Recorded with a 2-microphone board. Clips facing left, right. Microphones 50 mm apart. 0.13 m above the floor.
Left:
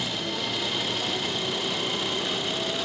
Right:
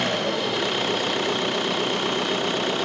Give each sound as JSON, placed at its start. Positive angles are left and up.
{"t": 0.0, "sound": "an engine running", "side_deg": -55}